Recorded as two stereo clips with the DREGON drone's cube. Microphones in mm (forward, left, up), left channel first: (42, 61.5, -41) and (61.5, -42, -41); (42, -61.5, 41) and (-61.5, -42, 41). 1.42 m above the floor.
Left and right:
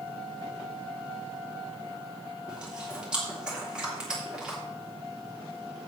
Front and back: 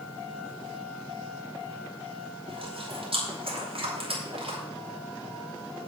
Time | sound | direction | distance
2.5 | chewing | 160° right | 3 m